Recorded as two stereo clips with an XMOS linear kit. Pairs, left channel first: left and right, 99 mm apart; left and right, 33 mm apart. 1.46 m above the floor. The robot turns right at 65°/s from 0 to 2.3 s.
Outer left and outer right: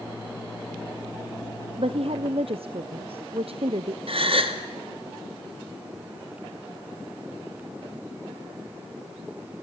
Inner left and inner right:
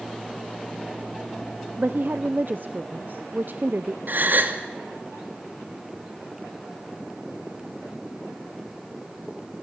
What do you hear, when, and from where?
1.8 s a woman speaking: 110° right, 0.7 m; by 4.0 s 75° right, 0.7 m
4.1 s a gasp: 70° right (ahead or behind), 2 m